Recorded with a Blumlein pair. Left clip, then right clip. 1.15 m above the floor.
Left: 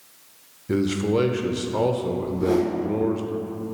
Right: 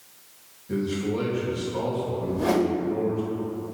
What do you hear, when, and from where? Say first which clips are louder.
0.7 s a man speaking: left 5 dB; 30° left, 0.5 m
2.2 s a whoosh: even; 55° right, 0.6 m